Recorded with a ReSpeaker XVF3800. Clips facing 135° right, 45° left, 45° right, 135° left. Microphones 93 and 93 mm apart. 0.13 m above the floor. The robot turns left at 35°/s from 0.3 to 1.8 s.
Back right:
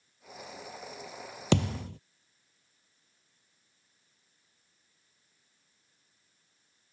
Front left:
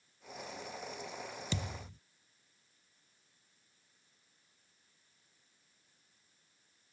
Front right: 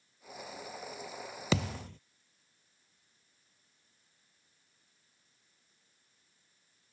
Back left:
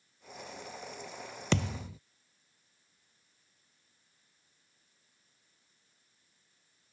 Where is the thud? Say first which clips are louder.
Back right 17 dB, back left 1 dB; 130° right; by 2.0 s 140° right.